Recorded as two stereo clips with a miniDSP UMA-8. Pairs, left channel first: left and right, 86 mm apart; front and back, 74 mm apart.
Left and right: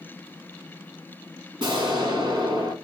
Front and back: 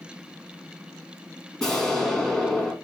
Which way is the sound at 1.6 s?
85° right.